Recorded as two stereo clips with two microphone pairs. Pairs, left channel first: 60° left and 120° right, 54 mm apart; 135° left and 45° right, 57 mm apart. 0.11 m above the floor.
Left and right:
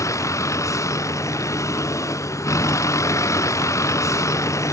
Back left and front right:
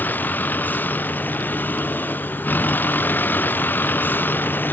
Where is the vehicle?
80° left.